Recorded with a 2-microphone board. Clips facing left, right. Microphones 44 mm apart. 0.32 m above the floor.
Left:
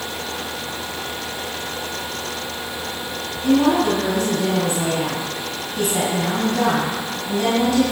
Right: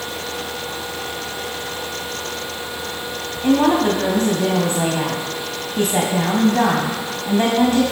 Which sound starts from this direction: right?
A woman speaking, at 3.4 s.